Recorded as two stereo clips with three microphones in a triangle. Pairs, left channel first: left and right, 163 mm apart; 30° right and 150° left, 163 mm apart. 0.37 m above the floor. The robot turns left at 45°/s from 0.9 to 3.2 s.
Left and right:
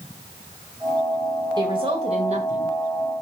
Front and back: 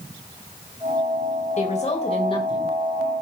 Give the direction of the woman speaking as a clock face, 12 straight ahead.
1 o'clock.